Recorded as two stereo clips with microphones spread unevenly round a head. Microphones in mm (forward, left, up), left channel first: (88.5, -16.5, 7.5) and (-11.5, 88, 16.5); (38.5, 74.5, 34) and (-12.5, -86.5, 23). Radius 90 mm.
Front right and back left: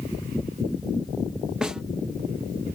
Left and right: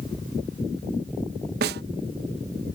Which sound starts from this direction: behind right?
A snare drum, at 1.6 s.